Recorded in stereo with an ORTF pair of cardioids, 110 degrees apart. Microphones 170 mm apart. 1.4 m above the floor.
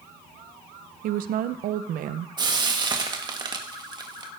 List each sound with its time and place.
1.0 s a woman speaking: 60° right, 0.9 m
2.4 s frying: 25° right, 1.8 m